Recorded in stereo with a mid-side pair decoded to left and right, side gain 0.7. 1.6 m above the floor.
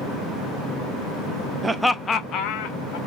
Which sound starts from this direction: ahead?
Laughter, at 1.6 s.